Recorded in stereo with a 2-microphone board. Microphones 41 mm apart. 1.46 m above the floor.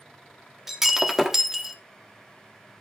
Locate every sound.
0.7 s breaking glass: 10° right (ahead or behind), 1.1 m